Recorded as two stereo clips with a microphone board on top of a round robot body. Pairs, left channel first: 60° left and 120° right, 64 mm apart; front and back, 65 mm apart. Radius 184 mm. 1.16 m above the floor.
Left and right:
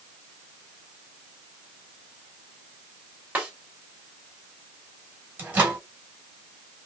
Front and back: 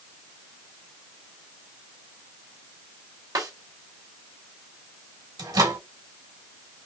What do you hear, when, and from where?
3.4 s a snare drum: 170° left, 1.9 m
5.4 s a microwave: straight behind, 2.5 m